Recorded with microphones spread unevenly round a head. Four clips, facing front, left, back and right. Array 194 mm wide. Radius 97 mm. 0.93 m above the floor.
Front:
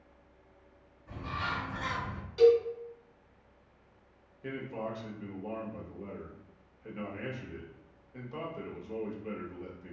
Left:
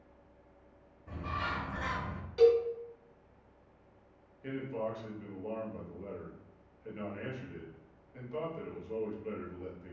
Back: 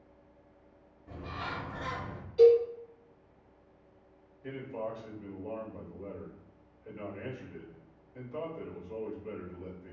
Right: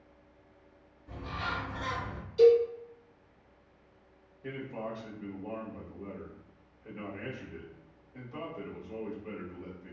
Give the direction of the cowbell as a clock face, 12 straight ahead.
10 o'clock.